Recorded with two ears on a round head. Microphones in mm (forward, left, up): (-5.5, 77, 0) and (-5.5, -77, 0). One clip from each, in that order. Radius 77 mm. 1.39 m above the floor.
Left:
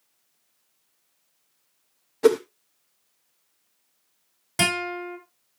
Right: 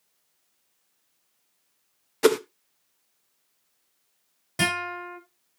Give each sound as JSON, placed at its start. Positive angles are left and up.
{"t": 2.2, "sound": "a whoosh", "side_deg": -55, "distance_m": 0.8}
{"t": 4.6, "sound": "a guitar", "side_deg": 20, "distance_m": 5.5}